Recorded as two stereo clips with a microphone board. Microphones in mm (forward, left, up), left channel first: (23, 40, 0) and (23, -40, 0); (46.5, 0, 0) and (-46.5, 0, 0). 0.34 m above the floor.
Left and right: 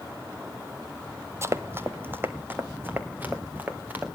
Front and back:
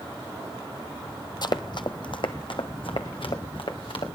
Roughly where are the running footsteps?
Ahead right.